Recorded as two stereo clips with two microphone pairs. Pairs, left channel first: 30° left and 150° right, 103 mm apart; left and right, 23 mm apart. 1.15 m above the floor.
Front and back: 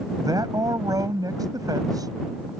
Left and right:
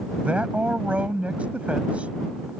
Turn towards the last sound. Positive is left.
turn(degrees=-100)